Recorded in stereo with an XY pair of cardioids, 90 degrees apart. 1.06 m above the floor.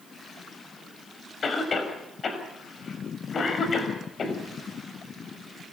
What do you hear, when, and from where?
1.4 s a cough: 45° left, 6 m